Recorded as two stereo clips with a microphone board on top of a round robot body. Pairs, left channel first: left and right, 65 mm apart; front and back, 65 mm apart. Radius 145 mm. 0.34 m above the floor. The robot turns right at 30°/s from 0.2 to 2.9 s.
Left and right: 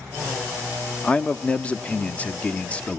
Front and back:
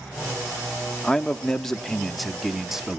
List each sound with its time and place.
1.0 s a man speaking: 55° left, 0.8 m; by 3.0 s 110° left, 0.8 m